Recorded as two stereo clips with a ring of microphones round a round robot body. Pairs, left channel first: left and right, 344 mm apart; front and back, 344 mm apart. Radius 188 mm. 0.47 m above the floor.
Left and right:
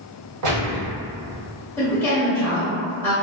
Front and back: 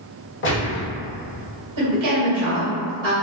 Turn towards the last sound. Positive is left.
turn(degrees=175)